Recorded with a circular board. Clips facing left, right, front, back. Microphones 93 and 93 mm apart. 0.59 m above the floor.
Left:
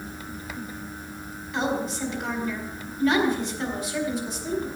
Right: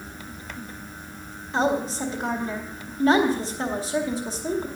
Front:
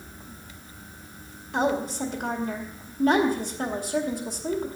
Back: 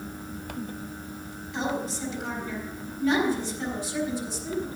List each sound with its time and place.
1.5 s a woman speaking: 30° right, 2 m